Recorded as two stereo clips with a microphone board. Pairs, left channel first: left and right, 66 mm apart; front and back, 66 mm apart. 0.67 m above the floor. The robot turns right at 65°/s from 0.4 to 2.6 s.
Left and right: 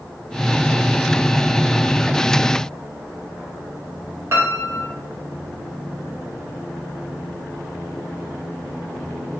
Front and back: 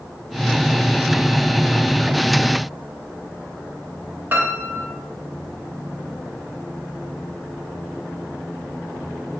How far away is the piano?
About 0.8 m.